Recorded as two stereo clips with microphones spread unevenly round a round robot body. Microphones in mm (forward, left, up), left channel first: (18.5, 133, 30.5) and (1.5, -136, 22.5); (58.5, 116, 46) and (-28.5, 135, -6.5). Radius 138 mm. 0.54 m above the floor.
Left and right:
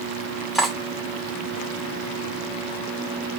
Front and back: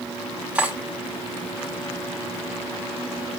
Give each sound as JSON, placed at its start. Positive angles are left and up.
{"t": 0.6, "sound": "cutlery clinking", "azimuth_deg": 180, "distance_m": 0.6}